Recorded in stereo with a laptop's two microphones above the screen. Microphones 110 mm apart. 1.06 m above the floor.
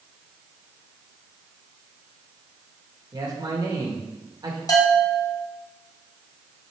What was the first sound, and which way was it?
A man speaking, 35° right (ahead or behind).